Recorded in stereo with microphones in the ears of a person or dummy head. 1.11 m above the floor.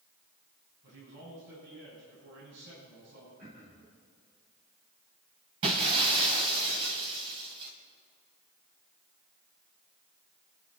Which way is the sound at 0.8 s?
65° right (ahead or behind).